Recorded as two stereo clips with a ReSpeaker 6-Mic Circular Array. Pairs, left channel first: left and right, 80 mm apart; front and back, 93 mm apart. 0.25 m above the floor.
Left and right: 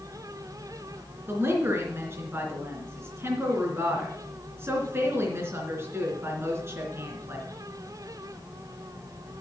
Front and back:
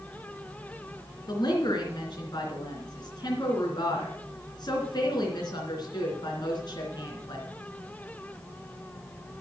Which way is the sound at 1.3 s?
35° right.